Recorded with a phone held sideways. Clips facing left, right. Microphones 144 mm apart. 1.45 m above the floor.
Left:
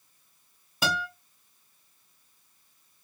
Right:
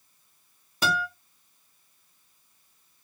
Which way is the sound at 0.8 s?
Centre (ahead or behind).